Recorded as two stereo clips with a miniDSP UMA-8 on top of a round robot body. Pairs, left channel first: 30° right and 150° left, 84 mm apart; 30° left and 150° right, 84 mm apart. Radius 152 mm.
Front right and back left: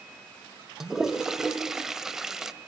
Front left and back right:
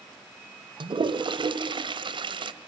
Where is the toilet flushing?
125° right, 1.5 m.